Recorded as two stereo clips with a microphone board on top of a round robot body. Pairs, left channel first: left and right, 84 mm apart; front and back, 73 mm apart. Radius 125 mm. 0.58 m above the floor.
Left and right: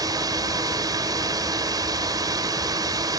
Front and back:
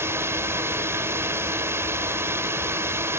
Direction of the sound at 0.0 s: 130° right.